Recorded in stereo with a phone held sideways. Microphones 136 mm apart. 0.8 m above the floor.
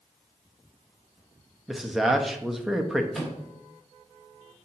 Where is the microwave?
Centre (ahead or behind), 1.6 m.